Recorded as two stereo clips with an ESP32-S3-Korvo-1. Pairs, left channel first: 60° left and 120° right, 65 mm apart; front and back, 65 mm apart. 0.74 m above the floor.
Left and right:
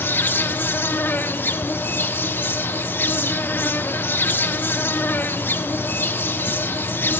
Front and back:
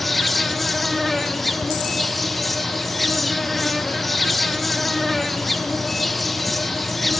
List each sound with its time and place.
0.0 s an insect: 85° left, 1.3 m